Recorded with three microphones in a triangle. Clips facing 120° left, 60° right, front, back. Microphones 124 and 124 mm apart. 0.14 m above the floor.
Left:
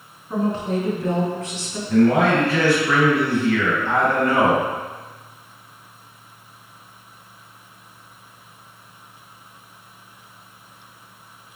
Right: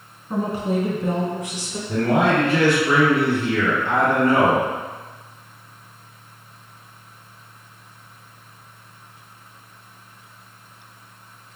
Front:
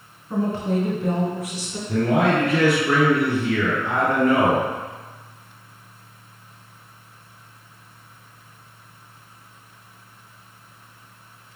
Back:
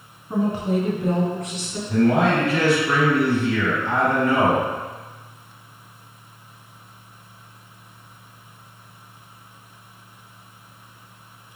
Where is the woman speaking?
130° right, 1.2 m; by 1.8 s 25° right, 1.1 m.